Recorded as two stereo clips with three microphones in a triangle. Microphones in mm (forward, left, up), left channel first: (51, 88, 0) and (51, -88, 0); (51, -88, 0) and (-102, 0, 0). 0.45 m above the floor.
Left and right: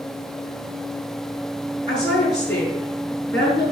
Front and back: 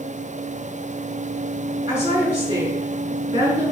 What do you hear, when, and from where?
1.9 s a woman speaking: 85° left, 6 m